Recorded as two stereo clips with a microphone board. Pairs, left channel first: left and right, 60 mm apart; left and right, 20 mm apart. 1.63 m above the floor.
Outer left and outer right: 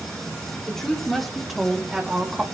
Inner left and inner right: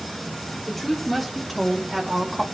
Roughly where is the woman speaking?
Centre.